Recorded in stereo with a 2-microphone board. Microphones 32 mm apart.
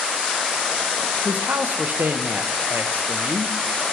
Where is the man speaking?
75° right (ahead or behind), 0.7 m.